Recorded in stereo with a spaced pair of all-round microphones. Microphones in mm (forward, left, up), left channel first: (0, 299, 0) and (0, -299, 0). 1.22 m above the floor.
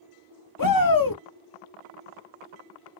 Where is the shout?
35° left (ahead or behind), 0.5 m.